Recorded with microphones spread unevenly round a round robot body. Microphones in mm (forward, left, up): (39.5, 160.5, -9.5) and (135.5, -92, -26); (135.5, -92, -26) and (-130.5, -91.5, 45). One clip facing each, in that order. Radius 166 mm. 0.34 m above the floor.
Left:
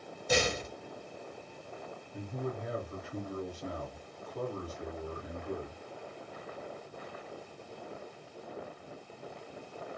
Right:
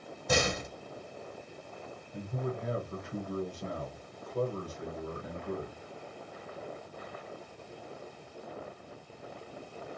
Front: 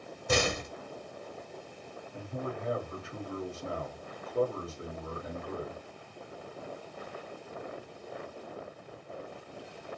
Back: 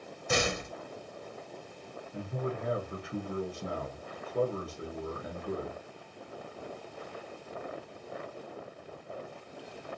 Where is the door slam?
40° right, 1.4 m.